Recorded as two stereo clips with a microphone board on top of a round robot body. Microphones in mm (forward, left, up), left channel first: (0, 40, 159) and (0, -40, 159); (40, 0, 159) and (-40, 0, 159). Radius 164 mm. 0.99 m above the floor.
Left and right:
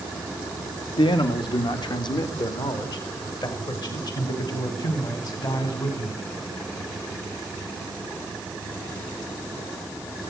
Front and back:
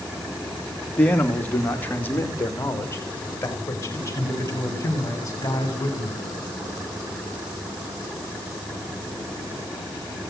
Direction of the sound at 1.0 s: 75° left.